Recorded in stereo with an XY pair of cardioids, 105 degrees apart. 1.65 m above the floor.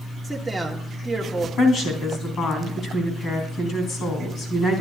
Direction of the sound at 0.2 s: 5° right.